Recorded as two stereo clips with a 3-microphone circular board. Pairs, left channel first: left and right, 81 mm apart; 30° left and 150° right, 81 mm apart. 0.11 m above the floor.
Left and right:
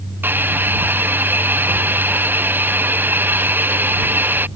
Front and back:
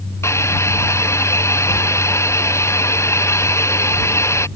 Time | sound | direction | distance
0.2 | a hiss | 25° right | ?